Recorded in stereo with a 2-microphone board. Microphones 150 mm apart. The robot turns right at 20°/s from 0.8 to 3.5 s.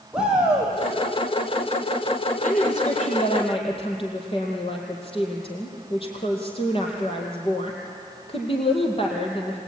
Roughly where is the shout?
Centre.